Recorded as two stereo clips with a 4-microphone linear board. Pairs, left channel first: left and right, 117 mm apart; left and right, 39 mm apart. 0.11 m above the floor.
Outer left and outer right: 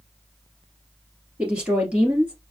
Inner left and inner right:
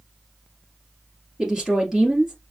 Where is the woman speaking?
10° right (ahead or behind), 2.5 m.